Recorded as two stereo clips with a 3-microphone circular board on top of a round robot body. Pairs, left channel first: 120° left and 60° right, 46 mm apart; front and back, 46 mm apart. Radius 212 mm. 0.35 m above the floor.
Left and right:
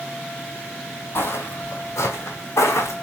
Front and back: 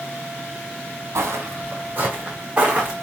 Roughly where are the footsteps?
Behind left.